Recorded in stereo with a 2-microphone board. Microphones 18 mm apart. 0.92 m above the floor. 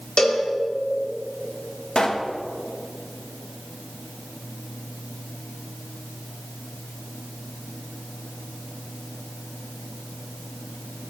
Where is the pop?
45° left (ahead or behind), 1.3 m.